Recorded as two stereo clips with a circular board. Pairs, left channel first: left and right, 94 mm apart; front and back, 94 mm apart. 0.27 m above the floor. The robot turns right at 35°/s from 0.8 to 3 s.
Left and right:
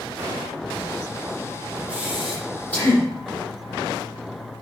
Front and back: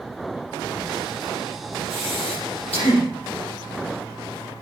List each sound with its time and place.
1.9 s breathing: 15° right, 8 m; by 3.0 s 25° left, 8 m